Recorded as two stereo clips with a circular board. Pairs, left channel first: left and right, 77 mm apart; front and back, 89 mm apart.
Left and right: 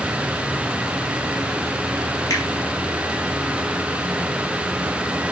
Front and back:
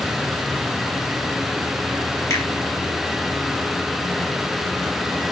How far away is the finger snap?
About 2.5 m.